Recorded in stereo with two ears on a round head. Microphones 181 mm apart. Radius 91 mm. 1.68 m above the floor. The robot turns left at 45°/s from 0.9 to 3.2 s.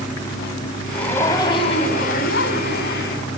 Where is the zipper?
175° left, 2.5 m; by 3.2 s 75° left, 2.5 m.